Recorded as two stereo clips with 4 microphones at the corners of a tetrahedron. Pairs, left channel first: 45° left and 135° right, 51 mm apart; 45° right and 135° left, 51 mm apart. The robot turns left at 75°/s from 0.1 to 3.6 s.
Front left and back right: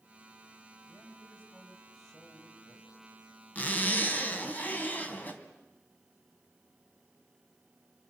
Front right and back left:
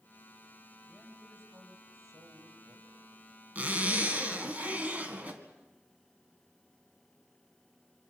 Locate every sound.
0.9 s a man speaking: 140° right, 5.5 m; by 3.1 s 55° left, 5.5 m
3.5 s a zipper: 90° left, 2.5 m; by 5.4 s 85° left, 2.5 m